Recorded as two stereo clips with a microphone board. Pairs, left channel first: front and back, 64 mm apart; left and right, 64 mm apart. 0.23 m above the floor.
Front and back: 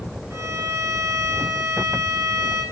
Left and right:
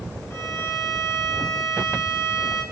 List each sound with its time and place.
0.3 s a violin: 145° left, 6 m